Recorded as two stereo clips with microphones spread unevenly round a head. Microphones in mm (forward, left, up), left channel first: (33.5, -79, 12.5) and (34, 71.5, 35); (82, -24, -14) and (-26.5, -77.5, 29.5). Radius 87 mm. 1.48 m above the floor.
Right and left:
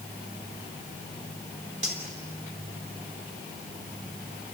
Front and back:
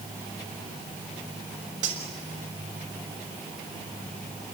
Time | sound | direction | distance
1.8 | cutlery clinking | 140° left | 3.5 m